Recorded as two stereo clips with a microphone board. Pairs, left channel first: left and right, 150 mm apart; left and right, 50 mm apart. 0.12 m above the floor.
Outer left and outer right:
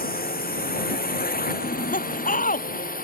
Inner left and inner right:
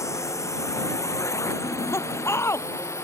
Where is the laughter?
70° left (ahead or behind).